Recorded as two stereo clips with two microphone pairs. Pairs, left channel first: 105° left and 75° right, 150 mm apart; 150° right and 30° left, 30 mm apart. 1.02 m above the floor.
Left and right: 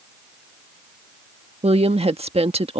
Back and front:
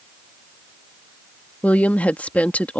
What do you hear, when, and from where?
1.6 s a woman speaking: 120° right